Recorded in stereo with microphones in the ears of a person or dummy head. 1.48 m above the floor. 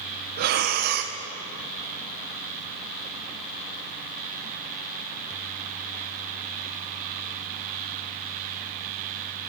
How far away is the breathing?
About 0.6 m.